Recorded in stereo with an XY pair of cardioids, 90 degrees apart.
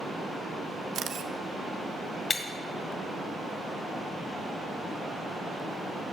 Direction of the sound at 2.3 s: 45° left.